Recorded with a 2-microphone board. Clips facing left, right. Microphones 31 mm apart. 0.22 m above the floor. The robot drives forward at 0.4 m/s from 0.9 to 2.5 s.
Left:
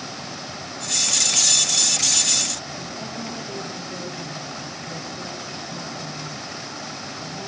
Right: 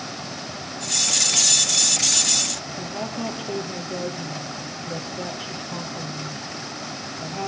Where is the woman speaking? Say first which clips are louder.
Right 3 dB; 45° right (ahead or behind), 6 m.